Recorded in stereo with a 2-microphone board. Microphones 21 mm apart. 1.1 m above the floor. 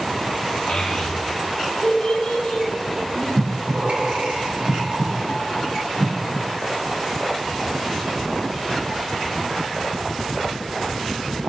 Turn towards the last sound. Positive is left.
turn(degrees=-75)  # may be behind; listen again after turning